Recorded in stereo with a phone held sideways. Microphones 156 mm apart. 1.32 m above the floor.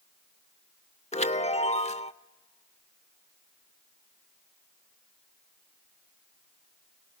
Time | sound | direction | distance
1.1 | a chime | 45° left (ahead or behind) | 0.7 m